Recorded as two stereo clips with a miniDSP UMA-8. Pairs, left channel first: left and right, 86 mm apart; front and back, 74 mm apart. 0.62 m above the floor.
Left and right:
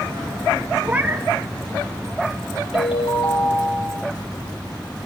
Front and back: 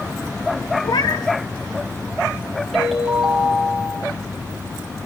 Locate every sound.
0.8 s a cat meowing: 20° right, 1.2 m
2.7 s a ringtone: 90° left, 6 m